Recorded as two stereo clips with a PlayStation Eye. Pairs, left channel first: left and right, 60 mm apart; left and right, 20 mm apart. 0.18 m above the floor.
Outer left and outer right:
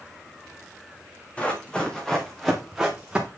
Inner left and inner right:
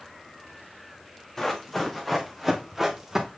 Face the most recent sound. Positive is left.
turn(degrees=-15)  # may be behind; listen again after turning